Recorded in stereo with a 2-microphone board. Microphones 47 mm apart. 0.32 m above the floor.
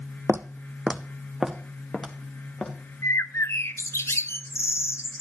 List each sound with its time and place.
0.3 s footsteps: 60° right (ahead or behind), 0.5 m; by 2.7 s 10° left (ahead or behind), 2.5 m
3.0 s a bird: 70° left (ahead or behind), 0.6 m